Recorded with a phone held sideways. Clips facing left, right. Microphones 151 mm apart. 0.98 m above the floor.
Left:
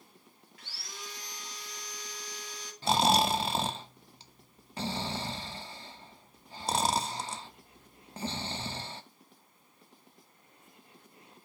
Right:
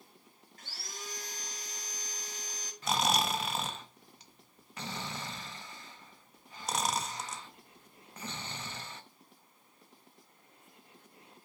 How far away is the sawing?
About 2 m.